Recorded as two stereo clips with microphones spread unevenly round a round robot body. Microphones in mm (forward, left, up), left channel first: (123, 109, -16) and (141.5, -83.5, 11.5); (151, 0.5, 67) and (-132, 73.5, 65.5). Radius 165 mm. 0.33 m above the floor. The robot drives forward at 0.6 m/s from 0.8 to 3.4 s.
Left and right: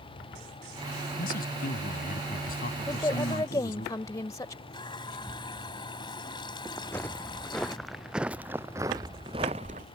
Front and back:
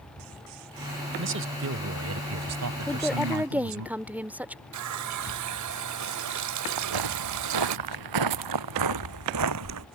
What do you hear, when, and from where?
1.2 s a man speaking: 130° left; by 3.9 s 150° left
2.9 s a woman speaking: 60° left; by 4.6 s 90° left
4.7 s a running tap: 165° left
6.8 s footsteps: straight behind; by 9.9 s 150° right